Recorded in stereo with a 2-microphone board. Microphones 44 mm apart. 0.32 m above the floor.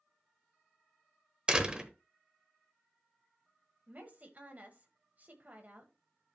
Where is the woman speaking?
40° right (ahead or behind), 1.6 m.